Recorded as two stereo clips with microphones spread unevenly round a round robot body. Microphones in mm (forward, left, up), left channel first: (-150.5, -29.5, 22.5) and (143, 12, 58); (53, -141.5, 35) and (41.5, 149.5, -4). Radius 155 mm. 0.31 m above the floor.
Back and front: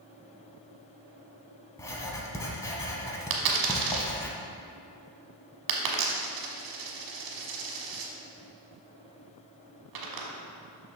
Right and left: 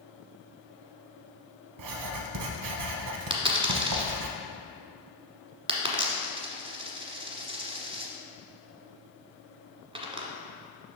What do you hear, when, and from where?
1.8 s writing: 110° left, 0.8 m
3.3 s a dropped coin: 20° left, 1.3 m